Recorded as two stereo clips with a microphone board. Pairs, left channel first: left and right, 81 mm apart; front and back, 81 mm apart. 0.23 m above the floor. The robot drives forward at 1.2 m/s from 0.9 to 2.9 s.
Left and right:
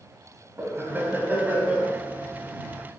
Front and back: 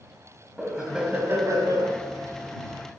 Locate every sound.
0.6 s laughter: 100° right, 1.0 m; by 1.9 s 160° right, 1.7 m